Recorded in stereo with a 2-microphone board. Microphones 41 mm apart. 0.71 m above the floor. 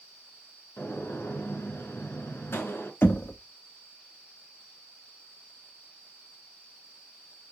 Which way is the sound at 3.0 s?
65° left (ahead or behind).